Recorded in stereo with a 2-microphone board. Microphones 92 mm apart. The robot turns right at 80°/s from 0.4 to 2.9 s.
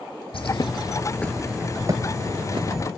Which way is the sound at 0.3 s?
100° left.